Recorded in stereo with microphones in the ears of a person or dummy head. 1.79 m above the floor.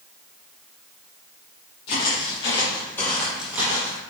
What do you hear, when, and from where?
1.9 s footsteps: 40° left (ahead or behind), 3 m; by 4.0 s 20° right (ahead or behind), 3 m